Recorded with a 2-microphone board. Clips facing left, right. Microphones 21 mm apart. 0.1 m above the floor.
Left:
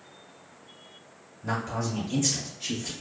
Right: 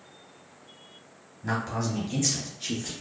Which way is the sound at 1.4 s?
25° right (ahead or behind).